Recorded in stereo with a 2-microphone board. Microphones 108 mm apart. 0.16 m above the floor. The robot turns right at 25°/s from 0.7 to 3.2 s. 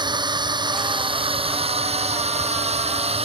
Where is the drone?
45° right (ahead or behind); by 3.3 s 70° right (ahead or behind).